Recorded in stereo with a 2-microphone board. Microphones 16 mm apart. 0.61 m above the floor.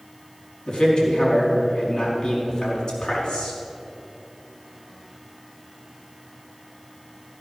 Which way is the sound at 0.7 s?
60° left (ahead or behind).